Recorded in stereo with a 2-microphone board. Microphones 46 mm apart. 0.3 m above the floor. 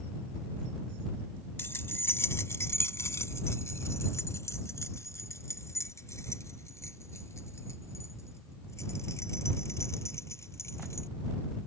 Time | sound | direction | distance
1.6 | keys jangling | 55° left (ahead or behind) | ?